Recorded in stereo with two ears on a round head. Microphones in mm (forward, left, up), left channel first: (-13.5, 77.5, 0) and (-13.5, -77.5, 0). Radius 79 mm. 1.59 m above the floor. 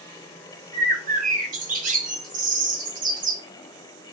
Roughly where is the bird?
Right.